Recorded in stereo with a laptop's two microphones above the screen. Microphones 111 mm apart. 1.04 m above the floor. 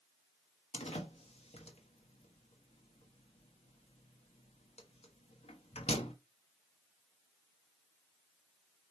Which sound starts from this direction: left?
A door slam, at 0.7 s.